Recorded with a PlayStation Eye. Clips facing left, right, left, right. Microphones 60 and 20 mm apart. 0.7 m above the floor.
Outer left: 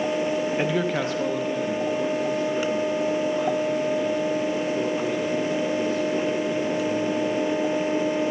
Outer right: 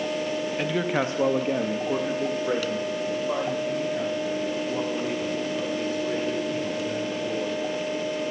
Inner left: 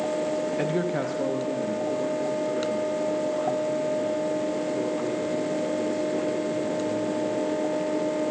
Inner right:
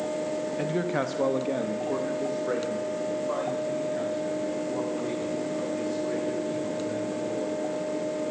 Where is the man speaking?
20° left (ahead or behind), 0.8 m; by 7.6 s 85° right, 8.5 m.